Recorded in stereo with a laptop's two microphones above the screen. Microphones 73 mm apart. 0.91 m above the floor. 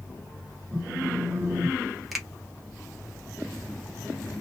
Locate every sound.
0.7 s a phone buzzing: 30° right (ahead or behind), 1.2 m
2.1 s a finger snap: centre (ahead or behind), 0.7 m